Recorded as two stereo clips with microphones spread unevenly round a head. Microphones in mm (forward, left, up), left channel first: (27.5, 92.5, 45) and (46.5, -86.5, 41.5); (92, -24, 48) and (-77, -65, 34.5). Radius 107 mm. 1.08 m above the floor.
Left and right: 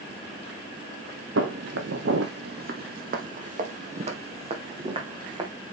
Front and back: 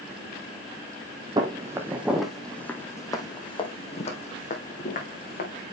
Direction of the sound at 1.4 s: 100° right.